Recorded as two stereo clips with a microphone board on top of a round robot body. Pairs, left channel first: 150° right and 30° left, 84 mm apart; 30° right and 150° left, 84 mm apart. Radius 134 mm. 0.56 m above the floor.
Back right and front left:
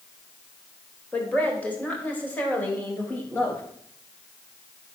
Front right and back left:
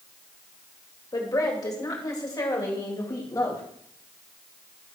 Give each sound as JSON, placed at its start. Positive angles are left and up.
{"t": 1.1, "sound": "a woman speaking", "azimuth_deg": -75, "distance_m": 3.0}